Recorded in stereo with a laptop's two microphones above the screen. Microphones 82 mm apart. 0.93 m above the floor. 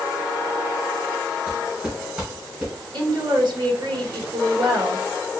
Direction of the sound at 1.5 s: 15° right (ahead or behind).